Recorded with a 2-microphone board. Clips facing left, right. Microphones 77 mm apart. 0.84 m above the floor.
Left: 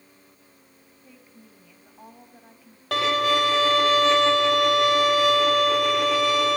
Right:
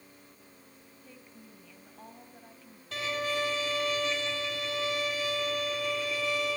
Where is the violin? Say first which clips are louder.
Left 11 dB; 70° left (ahead or behind), 1.7 m.